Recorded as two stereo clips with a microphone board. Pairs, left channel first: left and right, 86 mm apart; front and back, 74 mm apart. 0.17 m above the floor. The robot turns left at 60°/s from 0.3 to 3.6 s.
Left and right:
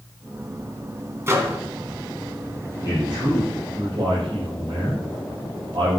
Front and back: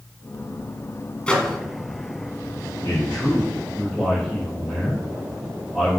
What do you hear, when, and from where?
1.3 s a microwave: 65° right, 1.5 m; by 1.6 s 85° right, 1.5 m
2.8 s a man speaking: 40° right, 5.5 m; by 6.0 s 85° right, 5.5 m